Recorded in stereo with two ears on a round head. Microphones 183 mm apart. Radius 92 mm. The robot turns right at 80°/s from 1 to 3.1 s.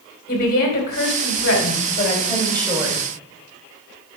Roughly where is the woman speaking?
Ahead left.